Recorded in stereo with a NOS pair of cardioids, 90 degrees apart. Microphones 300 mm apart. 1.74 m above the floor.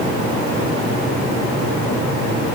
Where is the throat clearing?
No throat clearing in this recording.